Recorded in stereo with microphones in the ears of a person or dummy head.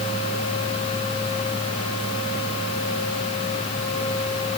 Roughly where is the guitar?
No guitar in this recording.